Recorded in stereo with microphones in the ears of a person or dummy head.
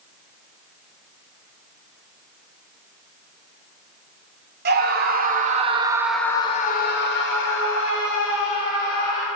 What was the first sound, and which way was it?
A scream, 50° right (ahead or behind).